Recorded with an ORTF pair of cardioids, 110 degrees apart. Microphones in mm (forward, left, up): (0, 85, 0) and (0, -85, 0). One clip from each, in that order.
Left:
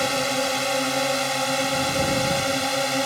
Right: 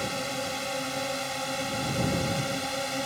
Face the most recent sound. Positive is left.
turn(degrees=45)